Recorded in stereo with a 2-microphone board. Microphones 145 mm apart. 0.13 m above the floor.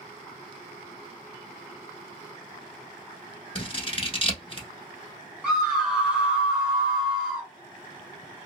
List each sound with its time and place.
3.5 s scissors: 35° left (ahead or behind), 1.0 m
5.4 s a scream: 5° right (ahead or behind), 1.7 m